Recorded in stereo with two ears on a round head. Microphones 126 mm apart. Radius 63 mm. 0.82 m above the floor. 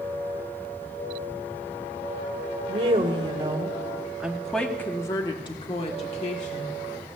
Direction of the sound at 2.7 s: 45° right (ahead or behind).